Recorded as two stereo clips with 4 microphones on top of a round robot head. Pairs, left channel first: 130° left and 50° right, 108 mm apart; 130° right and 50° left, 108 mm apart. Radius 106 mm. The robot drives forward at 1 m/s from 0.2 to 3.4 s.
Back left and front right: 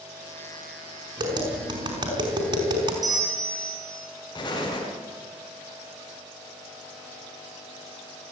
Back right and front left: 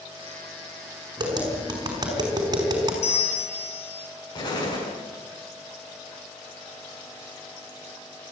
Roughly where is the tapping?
Ahead.